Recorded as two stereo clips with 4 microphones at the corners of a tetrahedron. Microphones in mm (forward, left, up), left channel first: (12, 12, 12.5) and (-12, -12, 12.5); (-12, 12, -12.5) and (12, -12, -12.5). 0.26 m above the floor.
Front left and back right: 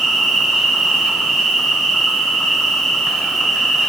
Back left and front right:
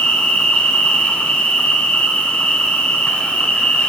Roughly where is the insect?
Behind left.